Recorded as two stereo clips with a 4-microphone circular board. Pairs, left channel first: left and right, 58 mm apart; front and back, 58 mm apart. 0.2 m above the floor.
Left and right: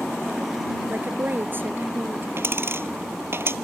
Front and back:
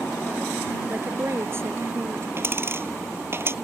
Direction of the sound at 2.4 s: 135° right.